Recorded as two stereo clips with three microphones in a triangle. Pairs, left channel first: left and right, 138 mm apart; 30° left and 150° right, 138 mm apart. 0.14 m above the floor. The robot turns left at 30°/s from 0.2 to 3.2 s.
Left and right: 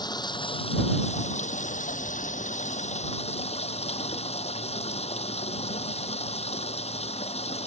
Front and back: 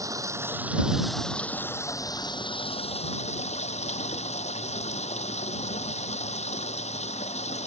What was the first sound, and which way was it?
Running water, 145° left.